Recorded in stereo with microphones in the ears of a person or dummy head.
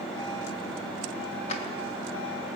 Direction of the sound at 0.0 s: 5° left (ahead or behind).